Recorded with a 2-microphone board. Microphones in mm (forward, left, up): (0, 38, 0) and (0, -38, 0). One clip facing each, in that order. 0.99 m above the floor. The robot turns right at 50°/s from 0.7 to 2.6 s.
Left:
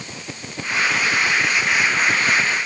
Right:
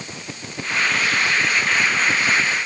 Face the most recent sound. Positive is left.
No sound to turn to.